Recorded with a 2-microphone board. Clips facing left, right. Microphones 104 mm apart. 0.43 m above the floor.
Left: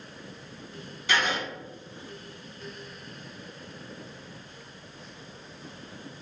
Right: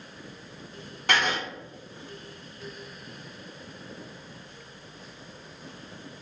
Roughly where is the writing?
Right.